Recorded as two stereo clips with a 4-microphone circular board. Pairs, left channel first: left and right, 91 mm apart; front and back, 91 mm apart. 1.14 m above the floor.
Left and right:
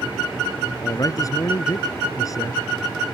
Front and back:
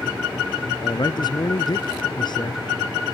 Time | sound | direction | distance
0.8 | a man speaking | 40° left | ?